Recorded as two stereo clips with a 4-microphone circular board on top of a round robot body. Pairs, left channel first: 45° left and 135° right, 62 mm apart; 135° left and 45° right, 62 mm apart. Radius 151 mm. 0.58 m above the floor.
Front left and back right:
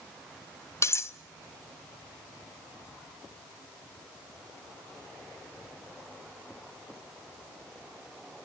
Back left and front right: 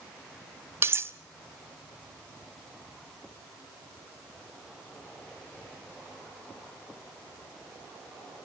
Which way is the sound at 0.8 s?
Straight ahead.